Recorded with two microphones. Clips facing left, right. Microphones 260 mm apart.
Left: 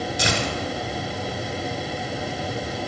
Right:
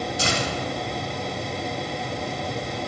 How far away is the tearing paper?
About 2 m.